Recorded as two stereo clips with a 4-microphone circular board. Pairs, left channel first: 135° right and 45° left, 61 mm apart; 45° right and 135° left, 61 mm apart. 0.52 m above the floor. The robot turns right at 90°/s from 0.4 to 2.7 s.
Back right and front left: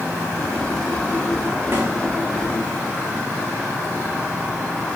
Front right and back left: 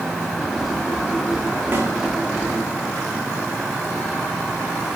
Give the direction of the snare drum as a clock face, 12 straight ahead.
9 o'clock.